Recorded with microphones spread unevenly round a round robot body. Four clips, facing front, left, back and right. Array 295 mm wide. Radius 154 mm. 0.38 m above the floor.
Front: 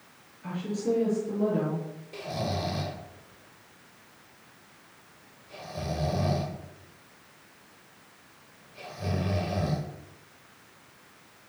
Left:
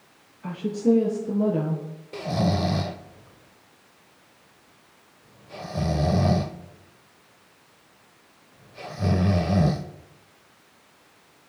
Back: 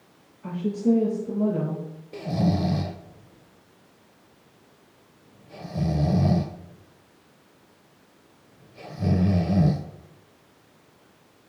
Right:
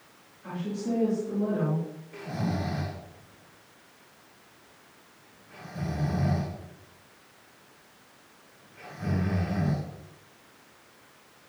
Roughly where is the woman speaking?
Left.